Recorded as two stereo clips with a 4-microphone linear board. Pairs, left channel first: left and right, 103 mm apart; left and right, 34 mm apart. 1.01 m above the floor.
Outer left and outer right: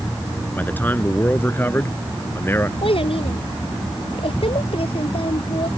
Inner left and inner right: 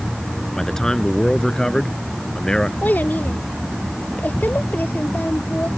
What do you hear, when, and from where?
0.6 s a man speaking: 20° left (ahead or behind); by 2.7 s 25° left (ahead or behind)
2.8 s a child speaking: 70° left (ahead or behind)